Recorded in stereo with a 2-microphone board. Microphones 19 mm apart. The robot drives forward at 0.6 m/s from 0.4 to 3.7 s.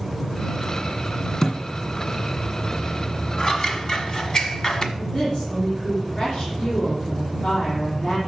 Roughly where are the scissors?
Left.